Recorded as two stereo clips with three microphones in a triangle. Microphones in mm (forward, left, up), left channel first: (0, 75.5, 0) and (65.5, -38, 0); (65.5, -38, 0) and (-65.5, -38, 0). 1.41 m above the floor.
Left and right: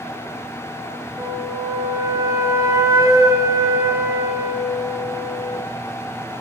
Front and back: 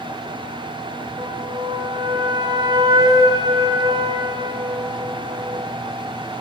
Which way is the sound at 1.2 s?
125° right.